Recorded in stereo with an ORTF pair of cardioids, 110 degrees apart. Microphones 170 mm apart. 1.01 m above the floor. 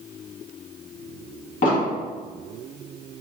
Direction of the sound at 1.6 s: 50° left.